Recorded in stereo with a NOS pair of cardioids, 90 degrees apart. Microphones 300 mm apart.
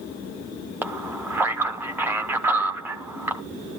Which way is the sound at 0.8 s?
5° right.